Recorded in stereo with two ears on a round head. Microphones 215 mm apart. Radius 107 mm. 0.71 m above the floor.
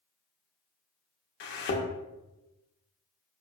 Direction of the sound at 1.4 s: 45° left (ahead or behind).